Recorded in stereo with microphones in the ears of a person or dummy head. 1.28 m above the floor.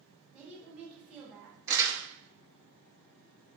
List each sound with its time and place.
0.3 s a woman speaking: 10° right (ahead or behind), 1.1 m
1.7 s crumpling: 20° right (ahead or behind), 0.7 m